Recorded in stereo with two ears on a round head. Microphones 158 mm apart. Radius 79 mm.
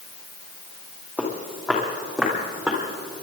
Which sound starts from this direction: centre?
Footsteps, at 1.2 s.